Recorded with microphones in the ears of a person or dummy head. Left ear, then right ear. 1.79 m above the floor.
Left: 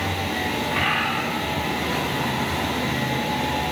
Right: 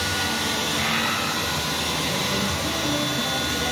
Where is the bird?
65° left (ahead or behind), 4 m.